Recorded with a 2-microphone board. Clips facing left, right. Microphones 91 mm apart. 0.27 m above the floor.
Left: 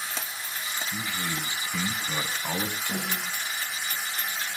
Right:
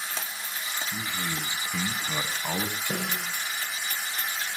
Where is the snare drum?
70° right (ahead or behind), 7.5 m.